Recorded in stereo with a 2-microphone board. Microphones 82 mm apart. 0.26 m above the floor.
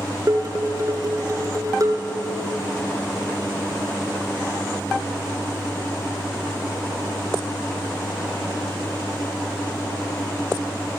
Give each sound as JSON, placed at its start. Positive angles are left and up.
{"t": 0.3, "sound": "dishes clattering", "side_deg": -45, "distance_m": 2.5}